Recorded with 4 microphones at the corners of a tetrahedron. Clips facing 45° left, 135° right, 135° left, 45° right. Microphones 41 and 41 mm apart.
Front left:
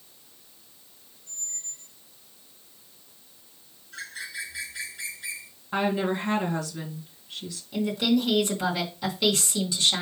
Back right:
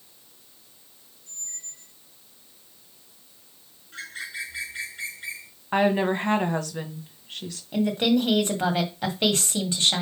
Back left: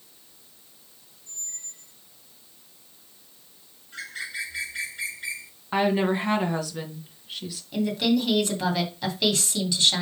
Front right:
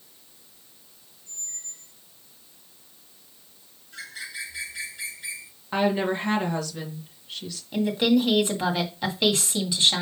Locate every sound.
1.3 s a squeak: 115° right, 1.4 m
3.9 s a bird: straight behind, 4 m
5.7 s a woman speaking: 150° right, 1.8 m
7.7 s a woman speaking: 115° right, 1.9 m